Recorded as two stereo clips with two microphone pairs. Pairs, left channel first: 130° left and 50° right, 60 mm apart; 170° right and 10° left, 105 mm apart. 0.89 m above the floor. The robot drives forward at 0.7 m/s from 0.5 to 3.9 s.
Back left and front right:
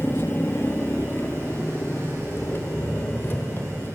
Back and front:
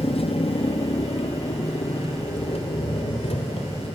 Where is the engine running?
175° left, 1.1 m; by 4.0 s straight behind, 3.5 m.